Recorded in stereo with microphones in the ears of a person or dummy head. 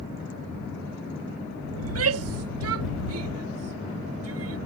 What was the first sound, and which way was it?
A shout, 80° right.